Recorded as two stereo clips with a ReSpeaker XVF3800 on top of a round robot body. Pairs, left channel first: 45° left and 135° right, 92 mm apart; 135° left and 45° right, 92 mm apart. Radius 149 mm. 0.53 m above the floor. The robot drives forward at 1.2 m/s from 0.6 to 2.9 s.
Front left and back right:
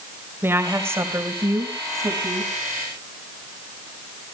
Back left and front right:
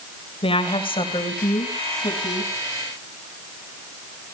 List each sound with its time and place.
0.4 s a woman speaking: 160° left, 2.5 m; by 2.5 s 170° left, 5 m